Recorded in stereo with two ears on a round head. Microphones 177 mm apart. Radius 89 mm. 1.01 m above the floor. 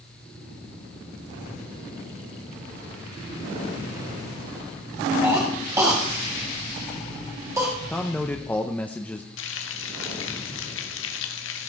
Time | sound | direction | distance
5.2 | a cough | 15° right (ahead or behind) | 1.9 m
7.9 | a man speaking | 10° left (ahead or behind) | 0.8 m
9.4 | frying | 70° left (ahead or behind) | 1.7 m